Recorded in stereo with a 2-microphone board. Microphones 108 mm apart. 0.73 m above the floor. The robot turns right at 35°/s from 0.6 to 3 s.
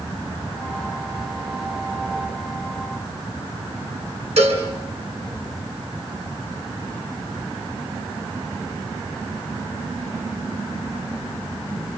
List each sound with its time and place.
4.4 s a cowbell: 85° right, 6 m